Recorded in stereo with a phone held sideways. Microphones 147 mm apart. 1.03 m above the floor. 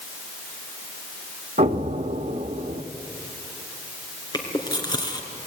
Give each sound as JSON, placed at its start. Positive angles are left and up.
{"t": 1.6, "sound": "an explosion", "side_deg": -65, "distance_m": 1.1}
{"t": 4.3, "sound": "chewing", "side_deg": 30, "distance_m": 3.0}